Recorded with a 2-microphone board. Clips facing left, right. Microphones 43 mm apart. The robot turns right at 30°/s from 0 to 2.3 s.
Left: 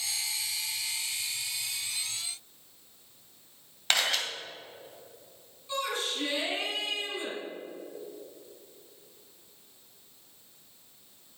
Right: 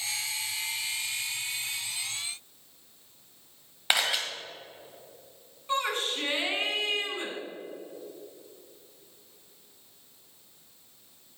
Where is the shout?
45° right (ahead or behind), 3 m.